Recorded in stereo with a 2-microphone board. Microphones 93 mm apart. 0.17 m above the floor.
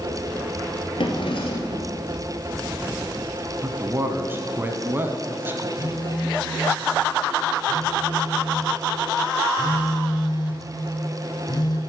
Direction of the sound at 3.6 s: 25° right (ahead or behind).